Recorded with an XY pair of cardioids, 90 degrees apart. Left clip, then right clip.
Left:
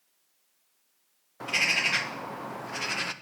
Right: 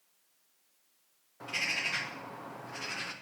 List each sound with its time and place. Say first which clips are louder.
1.4 s a bird: left 7 dB; 60° left, 0.8 m